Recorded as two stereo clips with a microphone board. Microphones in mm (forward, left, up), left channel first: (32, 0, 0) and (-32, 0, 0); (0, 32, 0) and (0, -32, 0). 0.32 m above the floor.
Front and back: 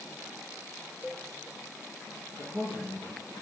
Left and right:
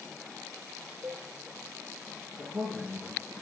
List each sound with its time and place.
1.0 s a cowbell: 110° right, 1.7 m
2.4 s a man speaking: 140° right, 6.5 m